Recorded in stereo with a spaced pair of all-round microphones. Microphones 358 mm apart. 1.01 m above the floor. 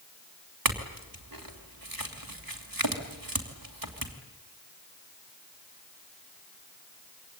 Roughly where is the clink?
Right.